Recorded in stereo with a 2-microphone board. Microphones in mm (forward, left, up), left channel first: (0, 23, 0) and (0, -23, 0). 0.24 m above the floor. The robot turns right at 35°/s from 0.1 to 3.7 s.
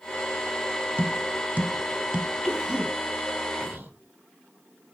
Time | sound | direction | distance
1.0 | tapping | 40° right (ahead or behind) | 0.6 m
2.4 | a cough | 10° right (ahead or behind) | 2 m